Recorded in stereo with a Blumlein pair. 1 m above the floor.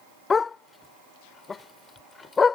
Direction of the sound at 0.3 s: 15° left.